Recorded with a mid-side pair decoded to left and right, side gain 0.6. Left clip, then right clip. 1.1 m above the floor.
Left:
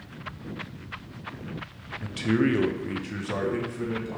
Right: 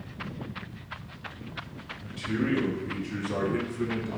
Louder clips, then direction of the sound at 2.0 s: Left 6 dB; 65° left.